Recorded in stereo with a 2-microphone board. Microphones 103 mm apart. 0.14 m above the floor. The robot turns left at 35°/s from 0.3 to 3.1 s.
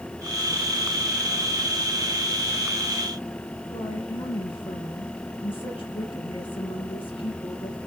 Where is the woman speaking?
55° left (ahead or behind), 4 m.